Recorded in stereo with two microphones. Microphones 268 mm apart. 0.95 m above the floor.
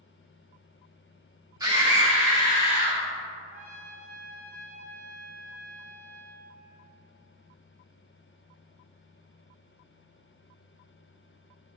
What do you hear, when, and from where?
1.6 s a scream: 15° right (ahead or behind), 0.6 m; by 3.0 s 25° right (ahead or behind), 1.5 m
3.5 s a trumpet: 30° right (ahead or behind), 1.9 m